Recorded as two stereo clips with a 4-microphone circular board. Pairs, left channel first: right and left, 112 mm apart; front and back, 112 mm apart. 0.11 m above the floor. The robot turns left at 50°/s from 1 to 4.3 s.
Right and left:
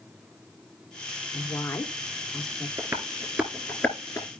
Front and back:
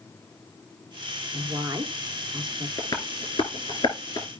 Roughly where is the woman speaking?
Behind right.